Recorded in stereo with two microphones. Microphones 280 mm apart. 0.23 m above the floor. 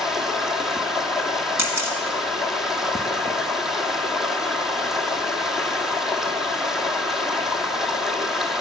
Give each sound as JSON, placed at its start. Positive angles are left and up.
{"t": 0.0, "sound": "running water", "side_deg": 0, "distance_m": 0.8}
{"t": 1.6, "sound": "a camera shutter", "side_deg": -65, "distance_m": 1.6}